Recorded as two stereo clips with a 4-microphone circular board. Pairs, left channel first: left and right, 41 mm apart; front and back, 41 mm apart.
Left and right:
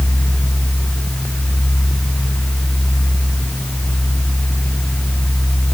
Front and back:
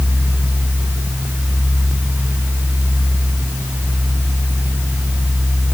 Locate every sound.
Only background noise.